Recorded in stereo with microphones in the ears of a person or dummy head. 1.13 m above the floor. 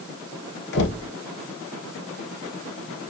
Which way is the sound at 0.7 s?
60° left (ahead or behind).